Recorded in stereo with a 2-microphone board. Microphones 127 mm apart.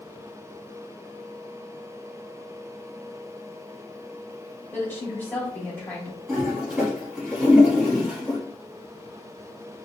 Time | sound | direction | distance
4.7 | a woman speaking | 15° left (ahead or behind) | 2 m
6.3 | a toilet flushing | 5° right (ahead or behind) | 2 m